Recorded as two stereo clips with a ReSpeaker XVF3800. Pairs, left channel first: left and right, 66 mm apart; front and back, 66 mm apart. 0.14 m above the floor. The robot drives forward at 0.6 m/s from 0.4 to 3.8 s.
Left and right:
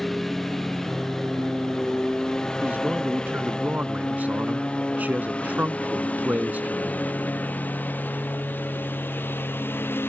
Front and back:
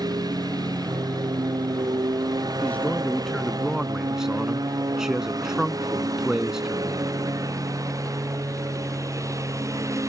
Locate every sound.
0.0 s a lawn mower: straight behind; by 10.1 s 145° left
2.6 s a man speaking: 45° right; by 7.1 s 105° right